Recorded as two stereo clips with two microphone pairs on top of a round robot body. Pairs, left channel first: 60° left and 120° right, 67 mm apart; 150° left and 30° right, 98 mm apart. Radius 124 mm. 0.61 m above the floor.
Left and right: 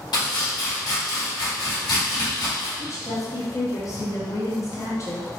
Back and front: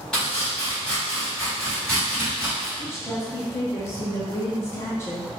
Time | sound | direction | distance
0.1 | chopping | 70° left | 1.9 m
2.8 | a woman speaking | 95° left | 1.3 m